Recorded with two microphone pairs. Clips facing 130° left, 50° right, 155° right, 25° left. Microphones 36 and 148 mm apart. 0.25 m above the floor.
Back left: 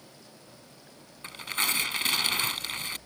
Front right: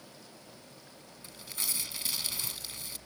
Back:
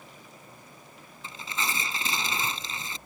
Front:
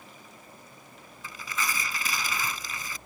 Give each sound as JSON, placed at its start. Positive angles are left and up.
{"t": 1.2, "sound": "tearing paper", "azimuth_deg": 145}